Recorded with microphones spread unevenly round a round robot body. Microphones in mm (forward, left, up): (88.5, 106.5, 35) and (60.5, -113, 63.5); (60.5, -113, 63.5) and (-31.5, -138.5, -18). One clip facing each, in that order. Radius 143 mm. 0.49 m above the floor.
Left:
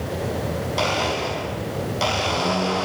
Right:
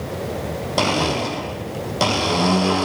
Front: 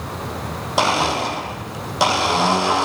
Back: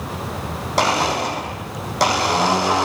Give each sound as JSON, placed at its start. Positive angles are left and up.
{"t": 0.8, "sound": "a blender", "azimuth_deg": -70, "distance_m": 4.5}